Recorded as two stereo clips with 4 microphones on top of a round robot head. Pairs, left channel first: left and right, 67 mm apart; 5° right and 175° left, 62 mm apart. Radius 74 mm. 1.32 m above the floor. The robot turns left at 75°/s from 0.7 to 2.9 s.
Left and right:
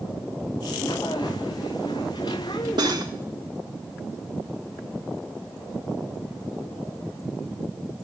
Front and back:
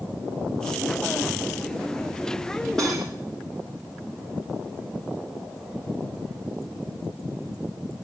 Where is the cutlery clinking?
90° right, 1.3 m; by 3.1 s 95° right, 1.3 m.